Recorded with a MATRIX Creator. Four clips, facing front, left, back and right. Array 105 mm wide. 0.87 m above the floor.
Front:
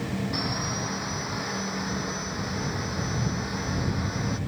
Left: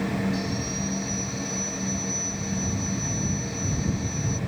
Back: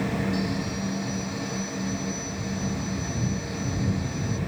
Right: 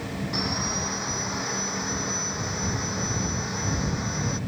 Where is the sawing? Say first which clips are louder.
Even, back 2 dB; 55° right.